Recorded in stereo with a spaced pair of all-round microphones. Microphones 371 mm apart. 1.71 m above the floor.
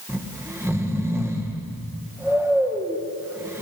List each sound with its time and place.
0.1 s snoring: 5° right (ahead or behind), 1.7 m